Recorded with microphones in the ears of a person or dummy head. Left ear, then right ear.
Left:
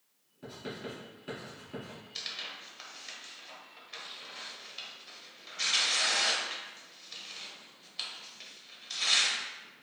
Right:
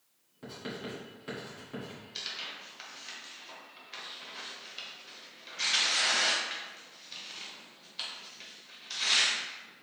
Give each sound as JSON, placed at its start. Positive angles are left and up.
{"t": 0.4, "sound": "writing", "side_deg": -20, "distance_m": 2.0}
{"t": 2.1, "sound": "tearing paper", "side_deg": 0, "distance_m": 0.8}